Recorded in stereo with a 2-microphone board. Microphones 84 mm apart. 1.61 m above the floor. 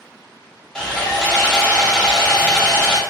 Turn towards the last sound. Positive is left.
turn(degrees=10)  # may be behind; listen again after turning